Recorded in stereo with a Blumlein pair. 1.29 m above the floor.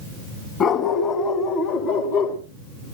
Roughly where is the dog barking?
Ahead left.